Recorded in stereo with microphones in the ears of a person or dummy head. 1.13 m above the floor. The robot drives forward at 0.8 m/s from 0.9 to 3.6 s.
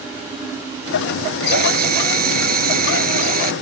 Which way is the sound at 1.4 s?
55° right (ahead or behind).